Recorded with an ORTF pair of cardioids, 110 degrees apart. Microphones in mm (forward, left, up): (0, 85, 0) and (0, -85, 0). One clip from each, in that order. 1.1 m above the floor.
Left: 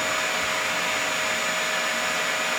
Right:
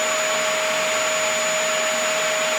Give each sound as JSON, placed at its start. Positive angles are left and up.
{"t": 0.0, "sound": "a machine running", "azimuth_deg": -65, "distance_m": 1.2}